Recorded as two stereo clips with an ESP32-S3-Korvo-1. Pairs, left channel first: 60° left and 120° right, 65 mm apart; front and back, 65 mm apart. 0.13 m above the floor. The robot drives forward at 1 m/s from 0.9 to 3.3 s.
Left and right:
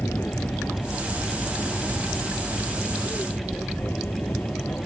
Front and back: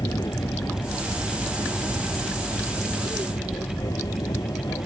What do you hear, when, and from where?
0.0 s an aircraft: 5° left; by 4.9 s straight ahead